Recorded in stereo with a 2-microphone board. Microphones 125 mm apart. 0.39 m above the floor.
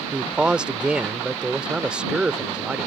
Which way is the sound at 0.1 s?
10° right (ahead or behind).